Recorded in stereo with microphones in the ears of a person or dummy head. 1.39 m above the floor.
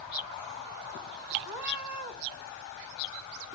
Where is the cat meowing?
60° right (ahead or behind), 2.5 m.